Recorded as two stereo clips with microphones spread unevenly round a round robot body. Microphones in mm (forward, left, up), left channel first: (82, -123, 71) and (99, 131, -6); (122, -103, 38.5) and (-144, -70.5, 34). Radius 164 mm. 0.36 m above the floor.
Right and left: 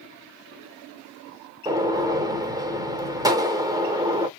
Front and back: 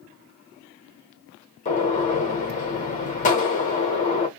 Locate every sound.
1.6 s a gunshot: 40° left, 1.0 m